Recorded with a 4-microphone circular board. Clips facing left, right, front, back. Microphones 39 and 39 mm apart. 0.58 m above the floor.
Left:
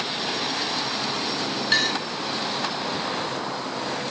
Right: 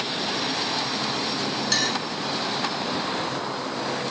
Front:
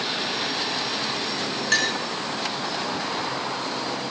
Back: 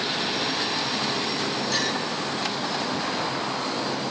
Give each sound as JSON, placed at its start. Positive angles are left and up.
{"t": 1.7, "sound": "a clink", "azimuth_deg": 30, "distance_m": 5.0}